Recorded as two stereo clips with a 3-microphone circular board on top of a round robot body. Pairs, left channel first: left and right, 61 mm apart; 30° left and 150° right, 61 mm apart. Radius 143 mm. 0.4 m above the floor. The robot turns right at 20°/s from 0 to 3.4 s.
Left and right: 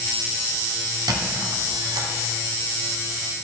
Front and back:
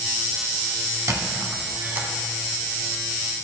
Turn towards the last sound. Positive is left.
turn(degrees=-60)